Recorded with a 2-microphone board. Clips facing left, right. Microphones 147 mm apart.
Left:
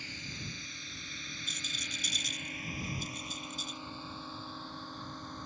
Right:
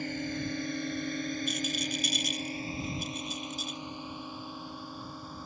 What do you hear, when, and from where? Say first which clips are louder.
0.0 s a drone: right 13 dB; 55° right (ahead or behind); by 5.5 s 10° right (ahead or behind)
1.5 s a rattle: right 13 dB; 75° right (ahead or behind)